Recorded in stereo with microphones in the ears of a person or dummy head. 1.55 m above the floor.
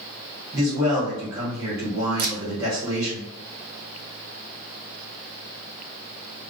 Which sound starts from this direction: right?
A camera shutter, at 2.2 s.